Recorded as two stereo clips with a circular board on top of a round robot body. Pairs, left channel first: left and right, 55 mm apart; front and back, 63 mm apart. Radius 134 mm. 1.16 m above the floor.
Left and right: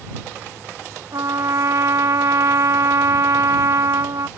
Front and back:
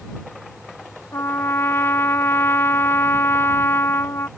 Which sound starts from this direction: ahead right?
A trumpet, at 1.1 s.